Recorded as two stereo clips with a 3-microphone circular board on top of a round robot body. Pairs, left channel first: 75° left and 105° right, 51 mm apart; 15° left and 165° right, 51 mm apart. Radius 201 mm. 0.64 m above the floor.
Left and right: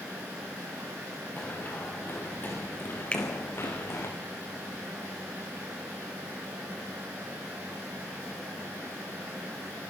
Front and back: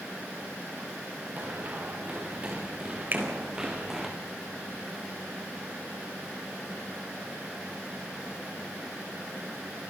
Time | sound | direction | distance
1.4 | running footsteps | 135° left | 6 m
3.1 | a finger snap | 145° left | 4.5 m